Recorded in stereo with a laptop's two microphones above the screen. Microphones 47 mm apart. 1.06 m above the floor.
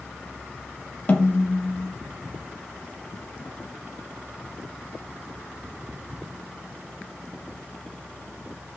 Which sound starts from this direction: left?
A snare drum, at 1.1 s.